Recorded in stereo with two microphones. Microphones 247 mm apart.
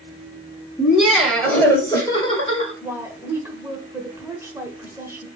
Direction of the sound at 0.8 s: 5° right (ahead or behind).